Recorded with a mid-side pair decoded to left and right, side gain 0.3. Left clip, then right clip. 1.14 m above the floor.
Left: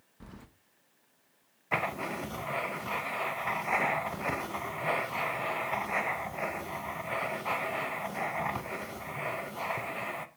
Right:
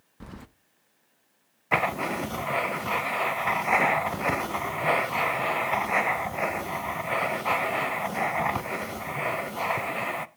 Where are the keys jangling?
60° right, 0.7 m.